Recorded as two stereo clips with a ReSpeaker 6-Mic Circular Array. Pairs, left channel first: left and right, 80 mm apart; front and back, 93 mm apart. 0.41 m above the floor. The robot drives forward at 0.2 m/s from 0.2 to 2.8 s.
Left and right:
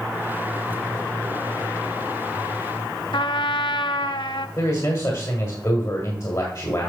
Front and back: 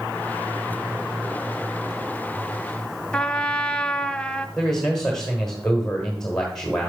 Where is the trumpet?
80° left, 0.5 m.